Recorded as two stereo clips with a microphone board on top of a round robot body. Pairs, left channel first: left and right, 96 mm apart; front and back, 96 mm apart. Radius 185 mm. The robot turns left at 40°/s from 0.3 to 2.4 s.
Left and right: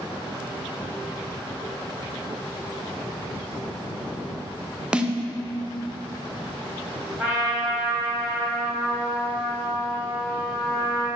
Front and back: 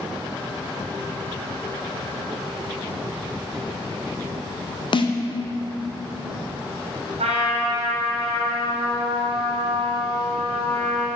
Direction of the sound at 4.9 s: 10° right.